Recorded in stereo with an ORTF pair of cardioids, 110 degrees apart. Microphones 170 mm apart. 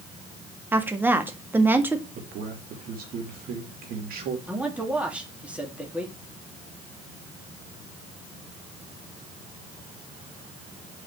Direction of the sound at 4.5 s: 5° right.